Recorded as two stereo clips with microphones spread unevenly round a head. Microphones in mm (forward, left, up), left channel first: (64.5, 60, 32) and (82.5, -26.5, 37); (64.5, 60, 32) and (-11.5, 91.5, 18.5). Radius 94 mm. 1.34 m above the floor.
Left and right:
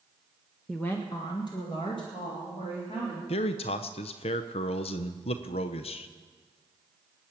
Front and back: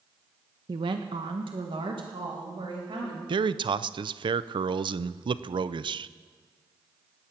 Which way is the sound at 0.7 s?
165° right.